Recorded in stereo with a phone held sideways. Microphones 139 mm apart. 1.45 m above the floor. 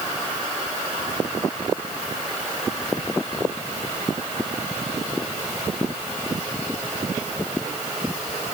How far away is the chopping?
No chopping in this recording.